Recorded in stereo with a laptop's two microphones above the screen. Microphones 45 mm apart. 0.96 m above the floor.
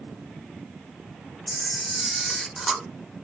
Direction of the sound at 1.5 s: 5° left (ahead or behind).